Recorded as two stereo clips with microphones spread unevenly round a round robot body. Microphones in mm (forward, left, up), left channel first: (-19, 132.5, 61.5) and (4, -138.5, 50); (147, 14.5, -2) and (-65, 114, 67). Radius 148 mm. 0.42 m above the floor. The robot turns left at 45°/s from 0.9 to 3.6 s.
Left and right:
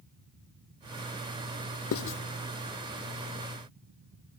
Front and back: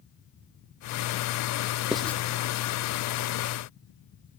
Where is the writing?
60° left, 0.7 m; by 2.2 s 45° left, 0.7 m.